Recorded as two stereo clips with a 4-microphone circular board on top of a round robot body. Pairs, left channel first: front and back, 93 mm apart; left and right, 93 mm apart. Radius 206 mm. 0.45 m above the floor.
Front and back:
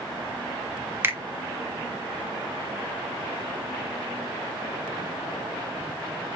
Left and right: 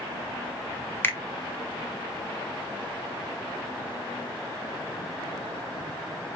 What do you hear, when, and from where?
1.0 s a finger snap: 140° left, 1.1 m